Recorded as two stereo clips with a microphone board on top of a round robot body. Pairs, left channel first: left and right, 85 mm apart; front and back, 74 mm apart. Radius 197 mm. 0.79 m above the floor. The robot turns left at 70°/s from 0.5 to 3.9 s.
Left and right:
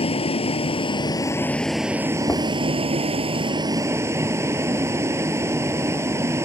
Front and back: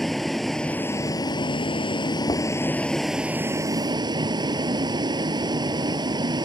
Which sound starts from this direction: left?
A vehicle, at 0.0 s.